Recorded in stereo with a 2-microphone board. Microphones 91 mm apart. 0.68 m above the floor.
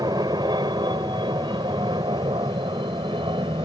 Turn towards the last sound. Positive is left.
turn(degrees=-65)  # may be behind; listen again after turning